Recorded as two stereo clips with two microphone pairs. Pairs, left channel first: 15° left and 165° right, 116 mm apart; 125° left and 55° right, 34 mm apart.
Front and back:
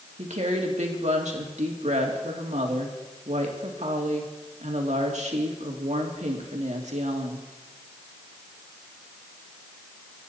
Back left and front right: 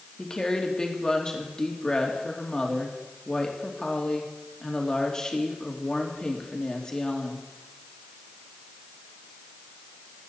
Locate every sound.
0.2 s a woman speaking: 165° right, 2.5 m